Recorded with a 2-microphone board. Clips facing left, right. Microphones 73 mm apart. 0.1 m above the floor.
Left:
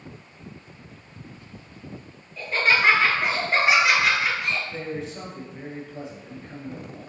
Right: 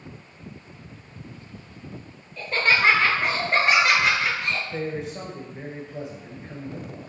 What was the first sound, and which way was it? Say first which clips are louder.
Laughter: even; 5° left (ahead or behind).